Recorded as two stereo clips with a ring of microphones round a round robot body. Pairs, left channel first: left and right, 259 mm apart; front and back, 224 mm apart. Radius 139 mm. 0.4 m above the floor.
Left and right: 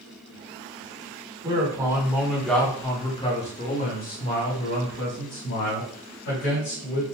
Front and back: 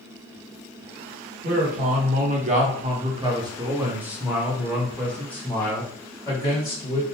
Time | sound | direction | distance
1.4 | a man speaking | 155° right | 1.4 m